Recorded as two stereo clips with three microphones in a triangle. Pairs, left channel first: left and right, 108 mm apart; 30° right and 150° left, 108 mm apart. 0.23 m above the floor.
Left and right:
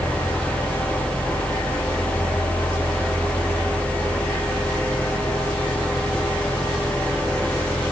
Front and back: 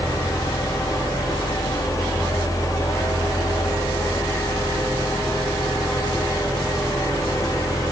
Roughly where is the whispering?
No whispering in this recording.